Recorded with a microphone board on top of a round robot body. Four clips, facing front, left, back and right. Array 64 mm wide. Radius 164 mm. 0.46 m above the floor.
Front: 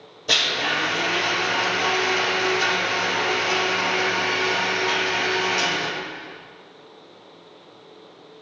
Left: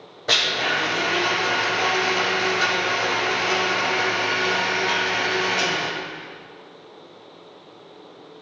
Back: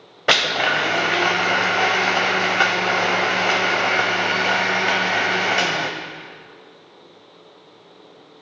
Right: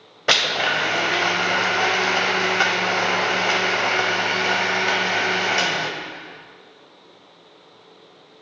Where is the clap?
I don't hear a clap.